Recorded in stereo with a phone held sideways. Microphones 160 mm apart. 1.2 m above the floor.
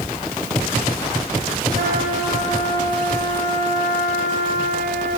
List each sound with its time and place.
1.8 s a trumpet: 60° right (ahead or behind), 5.5 m